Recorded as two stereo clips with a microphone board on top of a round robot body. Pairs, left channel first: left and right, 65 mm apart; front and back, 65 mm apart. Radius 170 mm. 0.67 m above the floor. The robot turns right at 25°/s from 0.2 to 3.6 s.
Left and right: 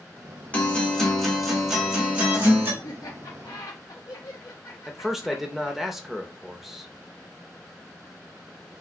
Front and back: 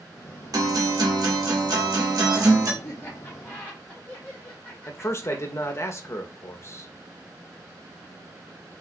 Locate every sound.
0.5 s a guitar: 160° left, 1.6 m; by 2.7 s 145° right, 1.6 m
2.8 s laughter: 55° left, 1.1 m; by 5.9 s 75° left, 1.1 m
4.9 s a man speaking: 5° right, 1.0 m